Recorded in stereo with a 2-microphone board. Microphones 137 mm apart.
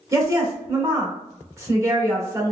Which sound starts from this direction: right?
A woman speaking, at 0.1 s.